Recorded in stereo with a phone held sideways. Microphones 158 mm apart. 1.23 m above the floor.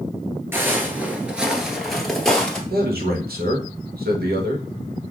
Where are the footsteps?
15° right (ahead or behind), 1.2 m; by 2.6 s 5° left (ahead or behind), 1.5 m.